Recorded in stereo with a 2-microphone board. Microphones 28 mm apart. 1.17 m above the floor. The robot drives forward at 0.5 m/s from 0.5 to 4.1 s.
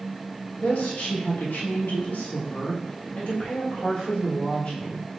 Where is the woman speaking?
60° left (ahead or behind), 1.3 m; by 5.1 s 45° left (ahead or behind), 1.5 m.